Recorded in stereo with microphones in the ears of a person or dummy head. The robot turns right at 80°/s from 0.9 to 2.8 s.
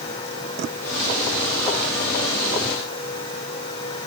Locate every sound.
Only background noise.